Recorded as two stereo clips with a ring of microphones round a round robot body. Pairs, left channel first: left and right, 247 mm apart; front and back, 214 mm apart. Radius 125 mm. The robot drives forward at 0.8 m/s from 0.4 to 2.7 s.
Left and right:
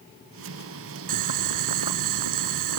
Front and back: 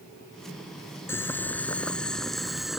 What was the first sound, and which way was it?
Boiling, 80° right.